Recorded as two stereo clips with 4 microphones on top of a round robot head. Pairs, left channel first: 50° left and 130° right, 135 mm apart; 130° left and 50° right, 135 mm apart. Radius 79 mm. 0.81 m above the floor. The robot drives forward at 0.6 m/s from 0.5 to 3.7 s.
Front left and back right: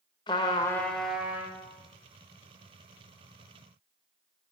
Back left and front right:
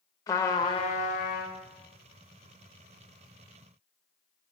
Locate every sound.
0.3 s a trumpet: 85° left, 0.5 m; by 1.6 s 160° left, 0.8 m